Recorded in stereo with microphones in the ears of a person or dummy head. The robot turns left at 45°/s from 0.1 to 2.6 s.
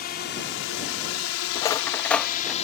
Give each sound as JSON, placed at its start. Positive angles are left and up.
{"t": 0.0, "sound": "a drone", "side_deg": 45}
{"t": 1.6, "sound": "cutlery clinking", "side_deg": 20}